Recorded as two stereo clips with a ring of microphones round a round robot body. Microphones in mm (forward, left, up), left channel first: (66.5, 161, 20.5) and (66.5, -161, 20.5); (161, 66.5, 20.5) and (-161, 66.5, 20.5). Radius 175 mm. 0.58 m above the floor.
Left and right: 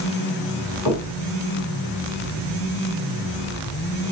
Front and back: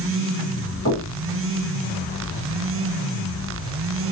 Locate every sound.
0.8 s knocking: 60° left, 5.5 m